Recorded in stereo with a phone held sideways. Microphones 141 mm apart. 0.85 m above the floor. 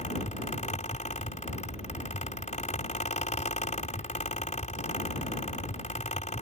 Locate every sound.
0.0 s a fan: 60° left (ahead or behind)